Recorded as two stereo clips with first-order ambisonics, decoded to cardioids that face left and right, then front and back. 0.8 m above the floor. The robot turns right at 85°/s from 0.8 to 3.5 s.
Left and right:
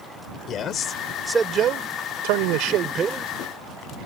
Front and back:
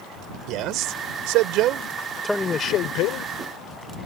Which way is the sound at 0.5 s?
145° left.